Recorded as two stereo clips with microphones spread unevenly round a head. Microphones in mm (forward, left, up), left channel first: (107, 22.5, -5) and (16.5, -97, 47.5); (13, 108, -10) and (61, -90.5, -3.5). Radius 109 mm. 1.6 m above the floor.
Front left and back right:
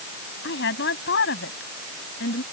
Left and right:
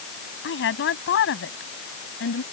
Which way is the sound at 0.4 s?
70° left.